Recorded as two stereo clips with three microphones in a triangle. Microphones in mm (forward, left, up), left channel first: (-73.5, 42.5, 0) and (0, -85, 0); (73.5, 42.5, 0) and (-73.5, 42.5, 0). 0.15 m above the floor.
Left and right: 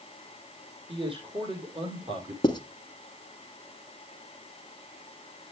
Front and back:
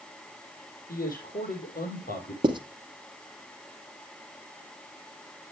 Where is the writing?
155° left, 1.1 m.